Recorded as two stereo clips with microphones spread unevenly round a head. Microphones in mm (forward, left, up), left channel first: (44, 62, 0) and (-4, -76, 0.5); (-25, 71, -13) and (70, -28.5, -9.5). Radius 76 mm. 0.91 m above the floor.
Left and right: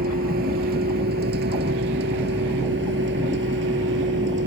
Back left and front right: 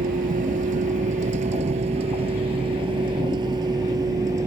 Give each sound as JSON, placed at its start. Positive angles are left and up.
{"t": 0.0, "sound": "a vehicle", "azimuth_deg": -85}